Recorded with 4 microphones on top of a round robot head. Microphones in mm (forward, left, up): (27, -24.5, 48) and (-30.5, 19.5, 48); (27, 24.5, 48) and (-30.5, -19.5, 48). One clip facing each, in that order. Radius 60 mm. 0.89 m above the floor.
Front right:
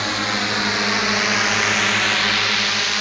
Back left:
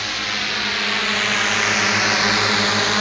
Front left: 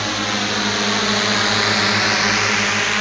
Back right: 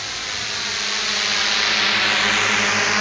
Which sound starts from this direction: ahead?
A drone, at 0.0 s.